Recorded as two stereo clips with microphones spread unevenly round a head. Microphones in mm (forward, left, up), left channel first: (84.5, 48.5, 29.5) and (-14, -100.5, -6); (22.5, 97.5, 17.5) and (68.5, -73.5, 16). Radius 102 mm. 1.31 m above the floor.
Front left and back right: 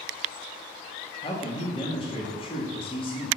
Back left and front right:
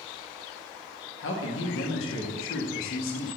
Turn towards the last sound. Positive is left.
turn(degrees=125)